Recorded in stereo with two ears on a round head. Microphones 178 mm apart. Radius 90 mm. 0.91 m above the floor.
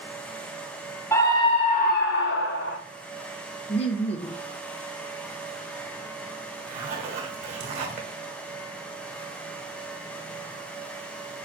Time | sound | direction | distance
1.1 | a scream | 15° left (ahead or behind) | 1.3 m
3.7 | laughter | 30° left (ahead or behind) | 0.8 m
6.7 | a zipper | 35° right (ahead or behind) | 1.7 m